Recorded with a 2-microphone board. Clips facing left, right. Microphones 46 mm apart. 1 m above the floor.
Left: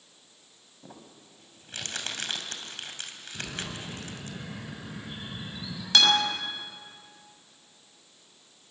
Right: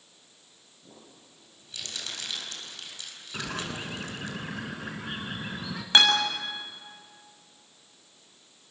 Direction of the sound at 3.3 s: 65° right (ahead or behind).